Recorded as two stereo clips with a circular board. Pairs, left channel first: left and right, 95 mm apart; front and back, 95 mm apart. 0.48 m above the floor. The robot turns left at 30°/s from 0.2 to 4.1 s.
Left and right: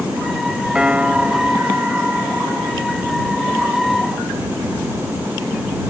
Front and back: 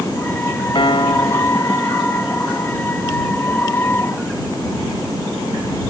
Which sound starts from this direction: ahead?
A piano, at 0.8 s.